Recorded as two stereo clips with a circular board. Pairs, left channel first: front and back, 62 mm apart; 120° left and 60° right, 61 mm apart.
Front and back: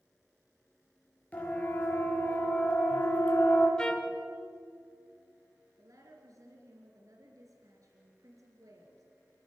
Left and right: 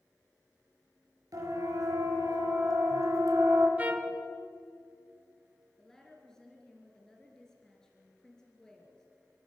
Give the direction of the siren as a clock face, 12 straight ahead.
2 o'clock.